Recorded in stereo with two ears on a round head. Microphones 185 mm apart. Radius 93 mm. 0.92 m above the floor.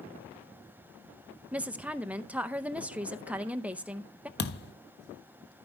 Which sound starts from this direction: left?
A thud, at 4.4 s.